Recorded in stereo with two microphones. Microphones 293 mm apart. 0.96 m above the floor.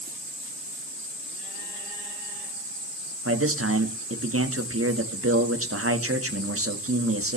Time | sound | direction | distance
3.2 | a man speaking | 50° right (ahead or behind) | 1.3 m